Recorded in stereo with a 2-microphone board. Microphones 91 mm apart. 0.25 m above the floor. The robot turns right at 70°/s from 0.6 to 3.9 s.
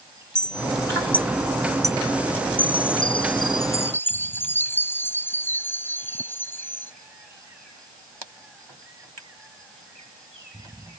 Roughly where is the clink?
Left.